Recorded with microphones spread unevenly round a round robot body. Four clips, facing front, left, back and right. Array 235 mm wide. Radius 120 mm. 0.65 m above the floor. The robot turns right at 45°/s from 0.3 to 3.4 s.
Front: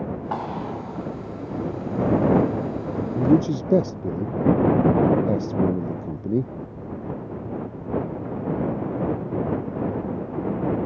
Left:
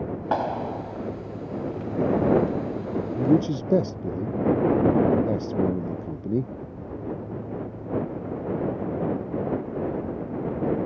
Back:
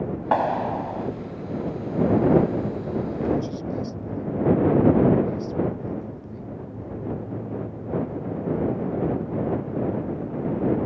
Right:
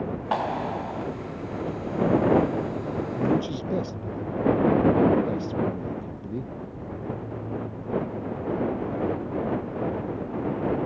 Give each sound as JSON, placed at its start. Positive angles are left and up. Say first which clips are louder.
{"t": 0.3, "sound": "a clap", "louder": "left 1 dB, back 10 dB", "azimuth_deg": 160}
{"t": 3.1, "sound": "a man speaking", "louder": "left 5 dB, front 10 dB", "azimuth_deg": 20}